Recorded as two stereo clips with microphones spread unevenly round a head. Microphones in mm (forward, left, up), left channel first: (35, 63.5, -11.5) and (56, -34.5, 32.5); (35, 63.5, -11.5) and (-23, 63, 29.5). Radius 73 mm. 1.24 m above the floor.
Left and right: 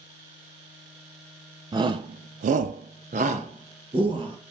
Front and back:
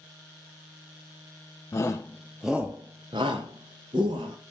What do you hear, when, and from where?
1.7 s a shout: 20° right, 0.7 m; by 4.4 s 140° right, 1.4 m